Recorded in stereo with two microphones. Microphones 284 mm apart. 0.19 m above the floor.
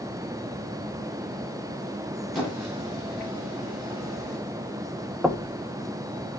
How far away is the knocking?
About 0.7 m.